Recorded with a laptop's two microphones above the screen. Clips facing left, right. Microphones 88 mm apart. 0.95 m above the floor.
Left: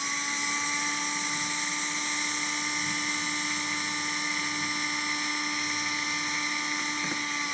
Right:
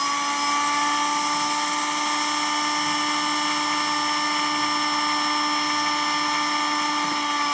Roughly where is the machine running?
Right.